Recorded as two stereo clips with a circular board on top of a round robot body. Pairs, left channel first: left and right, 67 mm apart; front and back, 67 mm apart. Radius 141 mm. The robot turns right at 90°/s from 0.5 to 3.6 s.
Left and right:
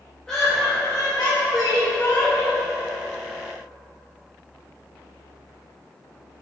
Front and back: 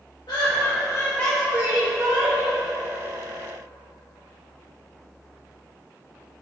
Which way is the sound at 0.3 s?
10° left.